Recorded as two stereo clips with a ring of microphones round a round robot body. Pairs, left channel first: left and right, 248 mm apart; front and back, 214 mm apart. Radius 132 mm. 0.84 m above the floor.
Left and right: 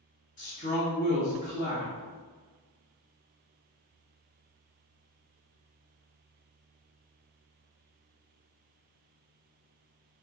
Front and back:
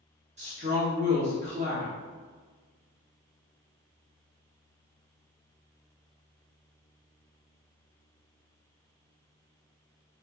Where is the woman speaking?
135° left, 1.1 m.